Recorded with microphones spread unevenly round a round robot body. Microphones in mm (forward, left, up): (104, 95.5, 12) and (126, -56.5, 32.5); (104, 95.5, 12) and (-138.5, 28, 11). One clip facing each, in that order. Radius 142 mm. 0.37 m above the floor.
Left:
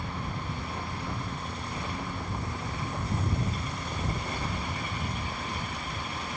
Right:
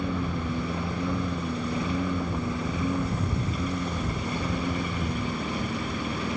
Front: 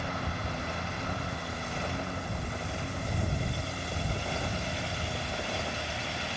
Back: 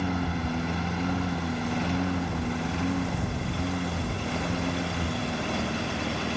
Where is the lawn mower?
130° right; by 6.4 s 115° right.